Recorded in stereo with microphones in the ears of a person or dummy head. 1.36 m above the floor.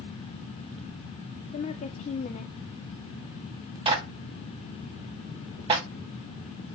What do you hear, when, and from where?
1.5 s a woman speaking: 30° left (ahead or behind), 0.6 m
3.9 s a clap: 25° right (ahead or behind), 2 m